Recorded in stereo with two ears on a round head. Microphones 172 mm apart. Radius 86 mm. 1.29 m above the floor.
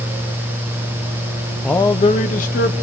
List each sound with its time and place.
1.6 s a man speaking: centre (ahead or behind), 0.6 m; by 2.7 s 55° left (ahead or behind), 1.5 m